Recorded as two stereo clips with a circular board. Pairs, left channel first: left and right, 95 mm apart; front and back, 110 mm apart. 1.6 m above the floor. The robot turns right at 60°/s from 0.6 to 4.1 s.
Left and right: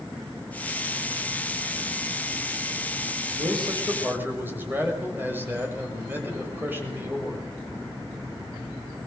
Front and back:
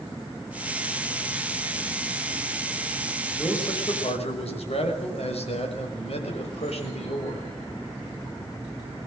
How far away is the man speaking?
About 6.5 m.